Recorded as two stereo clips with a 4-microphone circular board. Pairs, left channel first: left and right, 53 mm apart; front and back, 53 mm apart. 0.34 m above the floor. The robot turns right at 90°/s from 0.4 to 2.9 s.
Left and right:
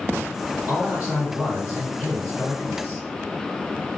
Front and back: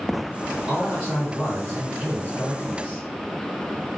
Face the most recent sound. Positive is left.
turn(degrees=45)